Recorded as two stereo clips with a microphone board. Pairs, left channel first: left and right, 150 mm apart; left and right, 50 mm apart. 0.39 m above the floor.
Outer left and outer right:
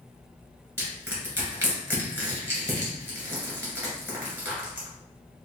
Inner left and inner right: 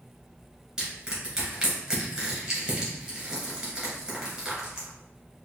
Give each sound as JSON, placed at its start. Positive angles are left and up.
{"t": 0.8, "sound": "crushing", "side_deg": -20, "distance_m": 2.0}